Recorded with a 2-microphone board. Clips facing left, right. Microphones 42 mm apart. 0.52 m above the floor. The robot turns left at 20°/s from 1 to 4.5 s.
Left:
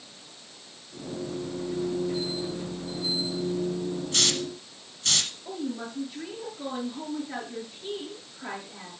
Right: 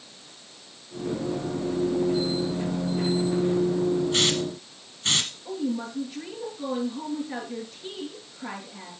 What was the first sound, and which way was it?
A hiss, 15° right (ahead or behind).